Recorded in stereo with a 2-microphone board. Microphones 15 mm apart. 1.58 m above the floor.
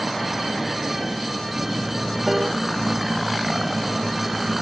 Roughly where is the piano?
Right.